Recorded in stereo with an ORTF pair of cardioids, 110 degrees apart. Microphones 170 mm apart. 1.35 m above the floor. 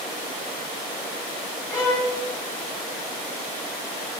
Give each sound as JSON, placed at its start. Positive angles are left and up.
{"t": 1.7, "sound": "a violin", "azimuth_deg": 20, "distance_m": 4.5}